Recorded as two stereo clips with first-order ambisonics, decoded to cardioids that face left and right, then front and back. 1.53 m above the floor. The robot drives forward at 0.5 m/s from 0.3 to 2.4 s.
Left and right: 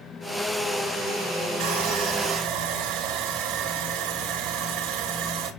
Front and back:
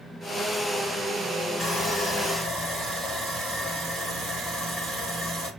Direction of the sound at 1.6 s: 105° right.